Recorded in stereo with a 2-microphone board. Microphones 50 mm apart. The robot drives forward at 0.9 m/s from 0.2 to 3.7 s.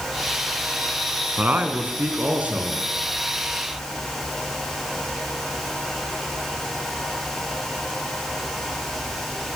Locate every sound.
1.4 s a man speaking: 35° right (ahead or behind), 2.5 m; by 2.8 s 25° right (ahead or behind), 3.5 m